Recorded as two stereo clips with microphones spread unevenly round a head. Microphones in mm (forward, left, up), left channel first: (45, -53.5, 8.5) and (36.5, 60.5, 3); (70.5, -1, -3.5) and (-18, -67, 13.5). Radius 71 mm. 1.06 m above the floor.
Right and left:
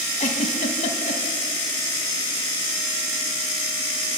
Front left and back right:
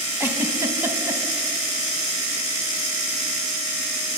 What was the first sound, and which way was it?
A giggle, 80° right.